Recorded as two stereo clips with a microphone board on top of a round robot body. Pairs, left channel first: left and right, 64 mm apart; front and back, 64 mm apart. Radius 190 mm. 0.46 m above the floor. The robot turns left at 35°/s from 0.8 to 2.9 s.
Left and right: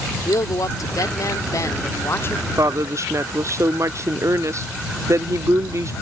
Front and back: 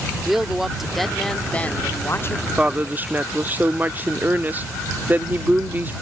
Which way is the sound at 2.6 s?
110° right.